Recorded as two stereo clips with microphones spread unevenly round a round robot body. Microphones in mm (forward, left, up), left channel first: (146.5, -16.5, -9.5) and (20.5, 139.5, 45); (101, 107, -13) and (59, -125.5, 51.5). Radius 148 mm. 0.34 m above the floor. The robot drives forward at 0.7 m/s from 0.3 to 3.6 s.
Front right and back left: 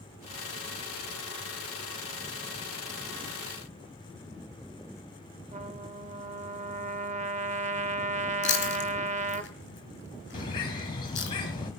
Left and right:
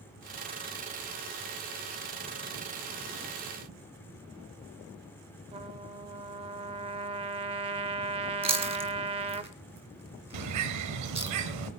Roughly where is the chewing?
Ahead right.